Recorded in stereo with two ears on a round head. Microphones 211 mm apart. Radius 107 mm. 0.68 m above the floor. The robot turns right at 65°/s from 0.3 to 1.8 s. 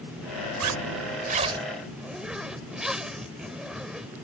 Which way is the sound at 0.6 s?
80° right.